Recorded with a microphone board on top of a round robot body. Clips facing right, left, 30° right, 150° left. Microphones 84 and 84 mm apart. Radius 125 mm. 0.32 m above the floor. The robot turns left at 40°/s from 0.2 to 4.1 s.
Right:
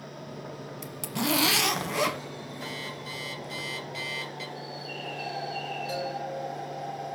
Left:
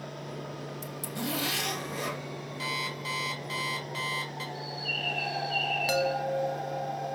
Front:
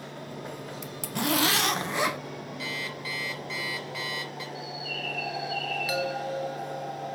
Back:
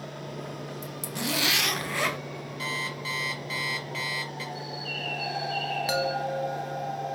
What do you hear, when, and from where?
0.8 s a zipper: 55° right, 1.0 m; by 2.2 s 110° right, 1.0 m
2.6 s an alarm clock: 105° left, 3.5 m; by 4.5 s 45° left, 3.5 m
4.5 s a bird: 100° left, 2.5 m
5.9 s a chime: 85° left, 0.8 m